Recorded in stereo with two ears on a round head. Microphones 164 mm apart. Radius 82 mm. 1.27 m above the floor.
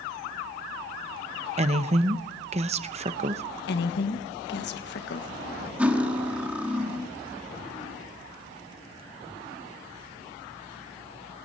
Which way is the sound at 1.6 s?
35° right (ahead or behind).